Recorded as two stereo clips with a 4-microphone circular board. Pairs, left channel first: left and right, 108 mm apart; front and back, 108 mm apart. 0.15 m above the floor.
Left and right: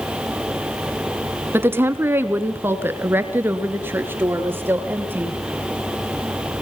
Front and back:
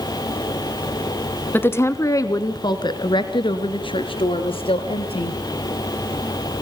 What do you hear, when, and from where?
1.5 s a woman speaking: 50° right, 1.1 m; by 5.4 s 20° right, 2.5 m